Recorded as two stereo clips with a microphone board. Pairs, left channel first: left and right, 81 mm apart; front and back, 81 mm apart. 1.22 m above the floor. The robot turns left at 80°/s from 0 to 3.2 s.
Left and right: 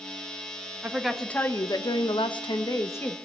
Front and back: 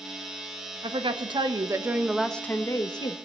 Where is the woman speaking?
160° right, 1.1 m; by 3.1 s 15° left, 1.1 m.